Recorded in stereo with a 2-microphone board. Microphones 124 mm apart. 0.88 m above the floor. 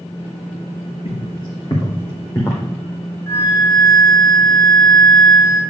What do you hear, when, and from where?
1.1 s footsteps: 45° left (ahead or behind), 3 m; by 2.6 s 25° left (ahead or behind), 2 m
3.3 s a flute: 25° left (ahead or behind), 1.7 m